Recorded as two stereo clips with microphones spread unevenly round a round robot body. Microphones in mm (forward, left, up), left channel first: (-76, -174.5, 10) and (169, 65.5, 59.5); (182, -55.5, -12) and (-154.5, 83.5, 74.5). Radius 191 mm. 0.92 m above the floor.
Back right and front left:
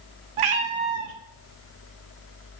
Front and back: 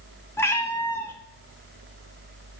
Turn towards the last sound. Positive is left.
turn(degrees=65)